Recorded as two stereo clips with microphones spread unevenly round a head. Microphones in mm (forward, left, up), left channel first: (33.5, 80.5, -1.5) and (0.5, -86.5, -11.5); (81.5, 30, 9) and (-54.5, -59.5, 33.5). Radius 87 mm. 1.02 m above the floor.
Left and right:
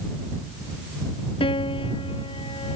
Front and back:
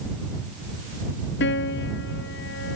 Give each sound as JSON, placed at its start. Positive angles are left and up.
{"t": 1.4, "sound": "a piano", "azimuth_deg": 20}